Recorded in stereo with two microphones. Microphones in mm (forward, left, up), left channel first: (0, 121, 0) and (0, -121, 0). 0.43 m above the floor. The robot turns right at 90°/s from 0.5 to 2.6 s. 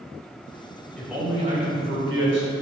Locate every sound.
1.0 s a man speaking: 170° left, 2.5 m; by 2.5 s 50° right, 2.5 m